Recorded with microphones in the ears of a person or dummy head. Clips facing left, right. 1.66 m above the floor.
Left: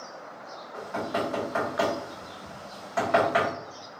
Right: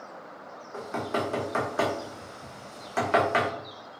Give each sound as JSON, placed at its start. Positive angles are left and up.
{"t": 0.7, "sound": "knocking", "side_deg": -45, "distance_m": 0.9}